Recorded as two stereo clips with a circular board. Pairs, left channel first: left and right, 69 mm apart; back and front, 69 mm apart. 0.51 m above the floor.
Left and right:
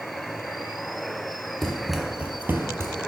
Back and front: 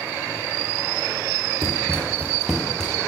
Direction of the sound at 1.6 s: 10° left.